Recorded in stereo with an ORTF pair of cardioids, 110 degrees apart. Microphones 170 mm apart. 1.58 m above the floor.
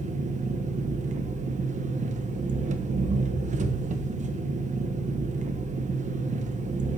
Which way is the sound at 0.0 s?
45° right.